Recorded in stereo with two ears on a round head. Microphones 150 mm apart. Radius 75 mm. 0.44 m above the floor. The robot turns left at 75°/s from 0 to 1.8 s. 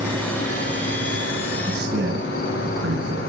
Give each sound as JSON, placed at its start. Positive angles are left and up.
{"t": 0.0, "sound": "an insect", "azimuth_deg": -165, "distance_m": 5.5}
{"t": 1.7, "sound": "a man speaking", "side_deg": -75, "distance_m": 4.0}